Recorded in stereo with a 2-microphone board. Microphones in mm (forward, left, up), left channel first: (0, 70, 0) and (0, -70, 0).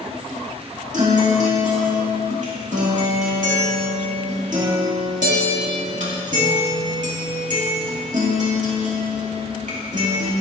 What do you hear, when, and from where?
0.9 s a guitar: 65° right (ahead or behind), 2 m